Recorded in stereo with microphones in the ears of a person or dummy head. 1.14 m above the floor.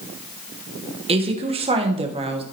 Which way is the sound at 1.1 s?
30° right (ahead or behind).